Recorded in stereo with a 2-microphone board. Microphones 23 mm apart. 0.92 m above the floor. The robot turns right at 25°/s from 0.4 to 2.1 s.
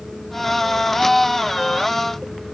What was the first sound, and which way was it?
Only background noise.